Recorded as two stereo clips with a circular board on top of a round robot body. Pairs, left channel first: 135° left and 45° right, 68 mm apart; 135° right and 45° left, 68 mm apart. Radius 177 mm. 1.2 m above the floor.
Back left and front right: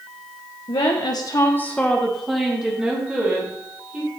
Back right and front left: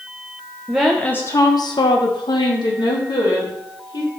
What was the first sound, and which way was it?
A woman speaking, 130° left.